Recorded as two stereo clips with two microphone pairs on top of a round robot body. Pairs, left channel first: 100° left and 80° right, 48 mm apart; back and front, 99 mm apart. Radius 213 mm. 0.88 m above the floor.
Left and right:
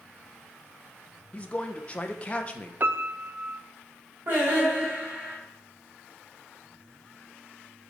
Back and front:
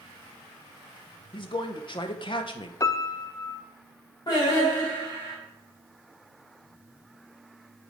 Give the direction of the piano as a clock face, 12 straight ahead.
4 o'clock.